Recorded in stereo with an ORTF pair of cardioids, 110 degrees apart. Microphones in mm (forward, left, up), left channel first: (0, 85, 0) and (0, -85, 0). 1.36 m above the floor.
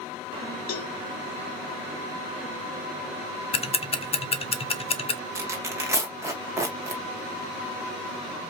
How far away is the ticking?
About 0.7 m.